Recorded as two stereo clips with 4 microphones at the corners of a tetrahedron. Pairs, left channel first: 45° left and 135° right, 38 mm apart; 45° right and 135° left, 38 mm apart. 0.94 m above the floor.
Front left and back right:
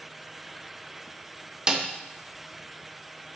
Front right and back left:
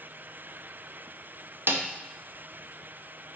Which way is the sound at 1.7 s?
155° left.